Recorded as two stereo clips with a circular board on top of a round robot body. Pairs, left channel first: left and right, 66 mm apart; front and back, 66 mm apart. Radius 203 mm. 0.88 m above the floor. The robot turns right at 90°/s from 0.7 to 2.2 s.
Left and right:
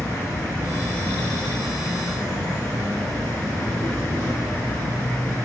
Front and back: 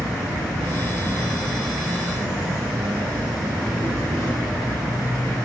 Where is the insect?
10° left, 0.9 m; by 5.5 s 145° left, 0.9 m.